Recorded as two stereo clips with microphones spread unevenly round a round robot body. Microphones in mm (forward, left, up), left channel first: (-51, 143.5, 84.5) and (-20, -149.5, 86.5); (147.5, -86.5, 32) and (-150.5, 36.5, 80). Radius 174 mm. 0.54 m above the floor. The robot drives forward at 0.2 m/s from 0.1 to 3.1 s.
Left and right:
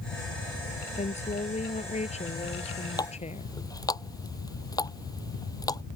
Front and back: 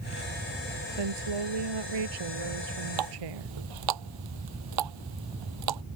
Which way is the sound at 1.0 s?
165° left.